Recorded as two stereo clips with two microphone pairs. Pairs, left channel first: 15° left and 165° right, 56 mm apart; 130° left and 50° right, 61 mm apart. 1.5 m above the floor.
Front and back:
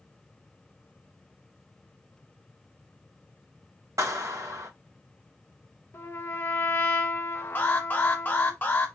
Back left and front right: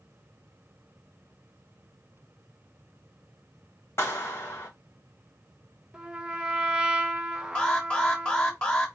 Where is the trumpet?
20° left, 0.7 m.